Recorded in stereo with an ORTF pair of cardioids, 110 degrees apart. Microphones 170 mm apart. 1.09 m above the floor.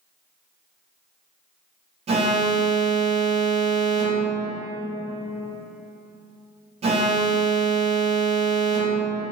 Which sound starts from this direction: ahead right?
An alarm, at 2.1 s.